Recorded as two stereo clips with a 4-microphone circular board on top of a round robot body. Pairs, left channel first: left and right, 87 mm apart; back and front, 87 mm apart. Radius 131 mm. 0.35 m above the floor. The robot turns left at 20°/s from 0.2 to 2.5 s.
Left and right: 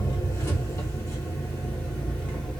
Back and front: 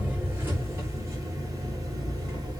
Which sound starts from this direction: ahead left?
An engine running, at 0.0 s.